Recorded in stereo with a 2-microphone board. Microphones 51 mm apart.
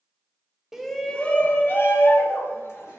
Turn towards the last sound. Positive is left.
turn(degrees=60)  # may be behind; listen again after turning